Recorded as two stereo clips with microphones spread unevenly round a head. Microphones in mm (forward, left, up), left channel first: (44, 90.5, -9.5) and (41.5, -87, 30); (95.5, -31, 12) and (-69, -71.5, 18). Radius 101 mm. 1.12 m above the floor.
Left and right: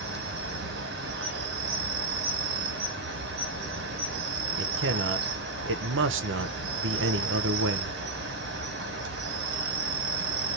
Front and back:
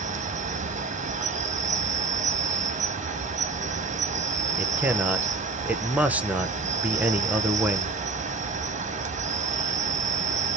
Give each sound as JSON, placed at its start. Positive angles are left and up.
{"t": 0.0, "sound": "an insect", "azimuth_deg": -125, "distance_m": 0.9}
{"t": 4.6, "sound": "a man speaking", "azimuth_deg": -85, "distance_m": 0.7}